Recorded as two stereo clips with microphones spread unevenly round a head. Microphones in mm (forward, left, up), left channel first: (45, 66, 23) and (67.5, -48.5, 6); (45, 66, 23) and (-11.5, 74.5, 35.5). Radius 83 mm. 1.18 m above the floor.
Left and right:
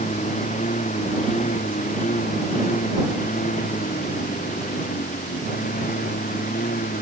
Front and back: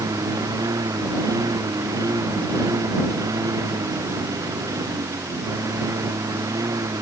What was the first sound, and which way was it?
A lawn mower, 155° left.